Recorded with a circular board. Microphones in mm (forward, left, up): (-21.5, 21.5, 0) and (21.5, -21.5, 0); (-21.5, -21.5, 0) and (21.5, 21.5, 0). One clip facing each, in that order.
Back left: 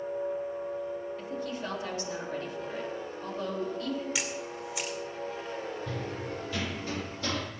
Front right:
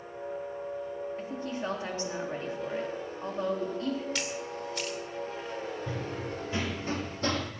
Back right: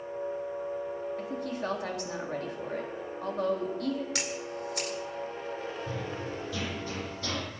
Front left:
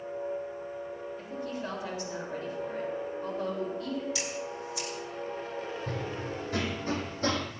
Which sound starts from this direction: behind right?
A camera shutter, at 4.2 s.